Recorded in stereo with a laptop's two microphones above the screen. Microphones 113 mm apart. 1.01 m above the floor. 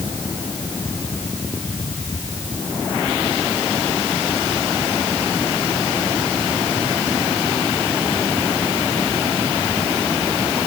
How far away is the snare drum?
No snare drum in this recording.